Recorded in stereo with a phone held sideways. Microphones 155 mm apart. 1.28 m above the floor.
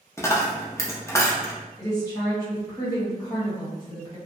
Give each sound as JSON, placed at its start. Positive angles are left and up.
{"t": 0.2, "sound": "a dropped coin", "side_deg": 20, "distance_m": 0.6}
{"t": 1.8, "sound": "a woman speaking", "side_deg": 25, "distance_m": 1.6}